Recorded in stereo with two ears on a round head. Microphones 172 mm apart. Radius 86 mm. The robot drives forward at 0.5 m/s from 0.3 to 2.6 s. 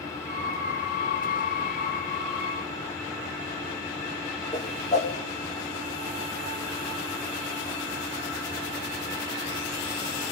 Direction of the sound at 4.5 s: 35° left (ahead or behind).